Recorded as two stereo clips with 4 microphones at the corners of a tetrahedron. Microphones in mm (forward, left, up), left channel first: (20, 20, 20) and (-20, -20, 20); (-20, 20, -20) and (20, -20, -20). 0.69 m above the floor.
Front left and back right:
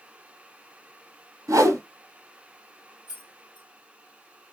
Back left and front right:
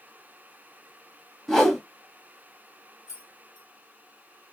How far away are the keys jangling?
About 1.7 m.